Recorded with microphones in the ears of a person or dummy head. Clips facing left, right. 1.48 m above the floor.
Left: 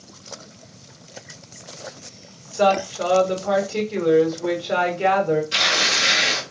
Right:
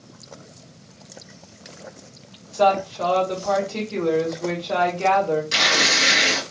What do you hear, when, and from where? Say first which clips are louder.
2.5 s a woman speaking: even; 20° left (ahead or behind), 1.1 m
5.5 s tearing paper: right 2 dB; 60° right (ahead or behind), 1.1 m